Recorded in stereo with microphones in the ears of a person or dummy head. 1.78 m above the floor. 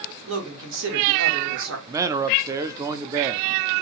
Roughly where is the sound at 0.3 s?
Right.